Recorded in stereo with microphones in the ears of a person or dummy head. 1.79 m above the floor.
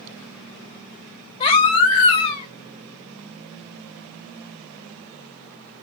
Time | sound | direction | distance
1.4 | a baby crying | 30° left (ahead or behind) | 4 m